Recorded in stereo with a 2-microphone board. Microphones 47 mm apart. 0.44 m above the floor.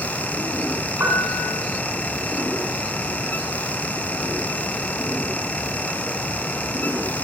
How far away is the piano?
About 3 m.